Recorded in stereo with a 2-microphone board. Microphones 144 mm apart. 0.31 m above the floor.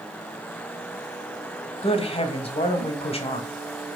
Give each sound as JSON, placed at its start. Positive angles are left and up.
{"t": 1.8, "sound": "a woman speaking", "side_deg": 45, "distance_m": 1.7}